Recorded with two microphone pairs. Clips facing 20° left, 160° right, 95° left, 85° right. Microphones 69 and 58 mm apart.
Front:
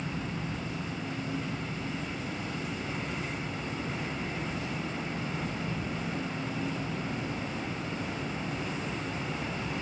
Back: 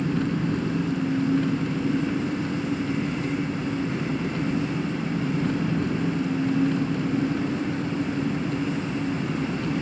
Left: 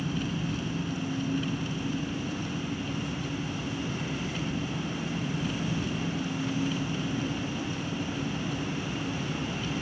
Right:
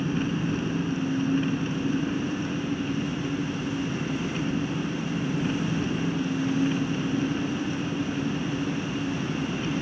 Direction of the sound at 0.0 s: 140° right.